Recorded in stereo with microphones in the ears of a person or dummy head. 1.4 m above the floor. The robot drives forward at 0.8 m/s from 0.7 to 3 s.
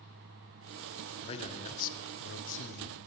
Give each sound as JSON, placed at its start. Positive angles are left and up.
{"t": 1.2, "sound": "a man speaking", "side_deg": 30, "distance_m": 1.2}